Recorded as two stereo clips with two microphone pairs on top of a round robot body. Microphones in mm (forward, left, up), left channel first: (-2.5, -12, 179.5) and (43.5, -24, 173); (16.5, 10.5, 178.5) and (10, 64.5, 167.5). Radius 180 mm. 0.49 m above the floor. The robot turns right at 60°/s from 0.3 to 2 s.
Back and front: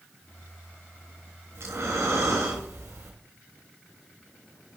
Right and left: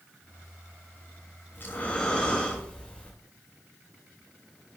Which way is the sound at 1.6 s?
35° right.